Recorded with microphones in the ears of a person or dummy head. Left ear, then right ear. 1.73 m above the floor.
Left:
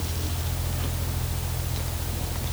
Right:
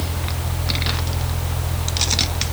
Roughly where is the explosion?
No explosion in this recording.